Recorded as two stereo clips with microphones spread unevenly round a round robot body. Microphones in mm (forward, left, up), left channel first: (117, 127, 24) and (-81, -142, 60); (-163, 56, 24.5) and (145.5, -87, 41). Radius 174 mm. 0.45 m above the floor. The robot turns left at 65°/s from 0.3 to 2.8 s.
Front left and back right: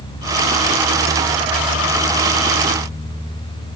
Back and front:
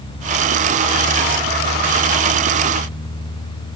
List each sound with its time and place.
Only background noise.